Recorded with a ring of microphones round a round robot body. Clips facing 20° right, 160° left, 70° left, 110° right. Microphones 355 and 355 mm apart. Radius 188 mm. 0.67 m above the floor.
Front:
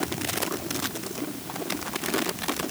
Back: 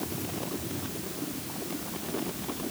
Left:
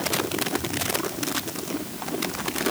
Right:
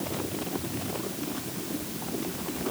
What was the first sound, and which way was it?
Only background noise.